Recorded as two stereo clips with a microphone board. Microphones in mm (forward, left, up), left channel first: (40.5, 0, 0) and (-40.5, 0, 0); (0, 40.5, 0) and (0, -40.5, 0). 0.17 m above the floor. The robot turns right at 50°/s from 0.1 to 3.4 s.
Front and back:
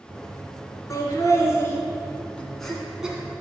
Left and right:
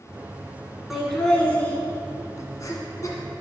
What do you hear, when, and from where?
0.9 s laughter: 5° right, 1.8 m; by 3.4 s 120° left, 1.8 m